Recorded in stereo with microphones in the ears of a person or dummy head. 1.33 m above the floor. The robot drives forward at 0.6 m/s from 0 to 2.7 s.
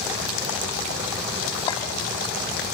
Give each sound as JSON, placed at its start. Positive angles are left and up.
{"t": 1.7, "sound": "a clink", "side_deg": 25, "distance_m": 2.5}